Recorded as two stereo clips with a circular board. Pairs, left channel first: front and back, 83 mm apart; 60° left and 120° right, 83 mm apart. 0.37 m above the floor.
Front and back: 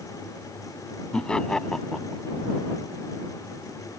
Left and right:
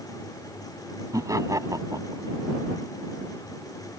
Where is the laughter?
80° right; by 2.2 s 85° right.